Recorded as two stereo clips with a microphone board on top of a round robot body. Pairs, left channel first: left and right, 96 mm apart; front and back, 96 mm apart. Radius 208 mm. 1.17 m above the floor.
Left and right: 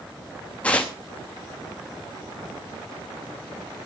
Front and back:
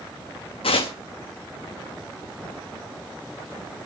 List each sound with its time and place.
0.6 s tearing paper: 15° left, 0.7 m